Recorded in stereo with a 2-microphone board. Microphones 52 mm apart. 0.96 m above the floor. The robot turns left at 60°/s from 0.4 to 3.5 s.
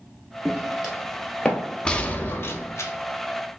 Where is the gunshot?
160° left, 0.7 m; by 2.9 s 95° left, 0.7 m.